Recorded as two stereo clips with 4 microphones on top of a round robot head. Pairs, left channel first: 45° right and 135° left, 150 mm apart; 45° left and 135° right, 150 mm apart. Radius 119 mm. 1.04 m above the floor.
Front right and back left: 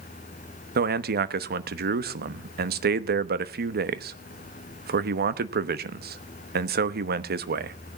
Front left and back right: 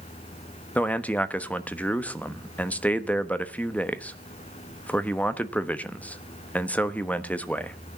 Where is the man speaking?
125° left, 1.1 m.